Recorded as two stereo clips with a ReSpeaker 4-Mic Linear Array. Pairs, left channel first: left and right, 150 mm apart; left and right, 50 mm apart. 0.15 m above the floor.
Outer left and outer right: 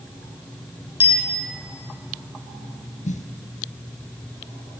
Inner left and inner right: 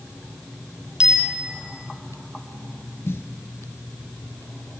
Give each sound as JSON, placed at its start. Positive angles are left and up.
{"t": 1.0, "sound": "a bicycle bell", "side_deg": -15, "distance_m": 4.0}
{"t": 3.0, "sound": "a snare drum", "side_deg": 55, "distance_m": 1.5}